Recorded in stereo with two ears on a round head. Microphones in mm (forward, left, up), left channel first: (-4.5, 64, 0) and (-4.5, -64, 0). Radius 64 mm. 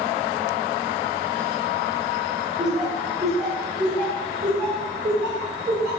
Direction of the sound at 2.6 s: 5° right (ahead or behind).